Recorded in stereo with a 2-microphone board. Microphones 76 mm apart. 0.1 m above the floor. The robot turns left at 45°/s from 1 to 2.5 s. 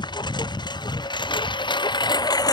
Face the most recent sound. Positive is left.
turn(degrees=55)  # may be behind; listen again after turning